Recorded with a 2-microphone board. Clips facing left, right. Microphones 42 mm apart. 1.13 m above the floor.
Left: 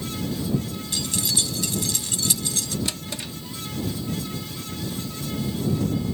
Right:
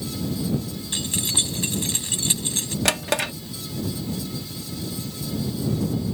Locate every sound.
0.9 s keys jangling: 35° right (ahead or behind)
2.9 s a drawer: 70° right (ahead or behind)